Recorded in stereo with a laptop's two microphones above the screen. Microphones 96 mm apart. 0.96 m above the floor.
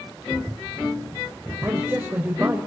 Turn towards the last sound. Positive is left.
turn(degrees=-15)  # may be behind; listen again after turning